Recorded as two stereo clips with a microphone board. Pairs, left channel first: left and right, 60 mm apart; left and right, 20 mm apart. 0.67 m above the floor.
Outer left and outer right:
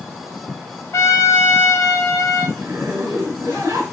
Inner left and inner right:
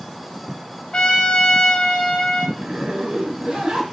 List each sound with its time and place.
0.9 s a trumpet: 55° left (ahead or behind), 0.8 m
2.6 s a zipper: 50° right (ahead or behind), 1.7 m